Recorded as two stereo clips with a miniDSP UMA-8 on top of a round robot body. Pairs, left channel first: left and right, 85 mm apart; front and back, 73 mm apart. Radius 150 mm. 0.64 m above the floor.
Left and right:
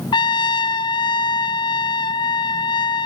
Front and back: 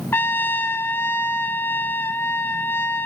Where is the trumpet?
65° left, 1.1 m.